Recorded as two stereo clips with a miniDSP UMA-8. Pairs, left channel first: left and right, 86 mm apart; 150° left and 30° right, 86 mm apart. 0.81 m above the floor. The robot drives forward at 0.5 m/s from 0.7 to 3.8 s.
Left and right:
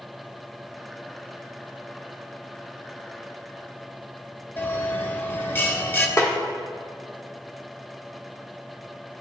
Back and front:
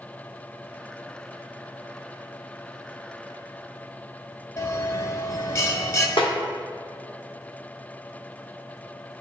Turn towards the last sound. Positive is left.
turn(degrees=145)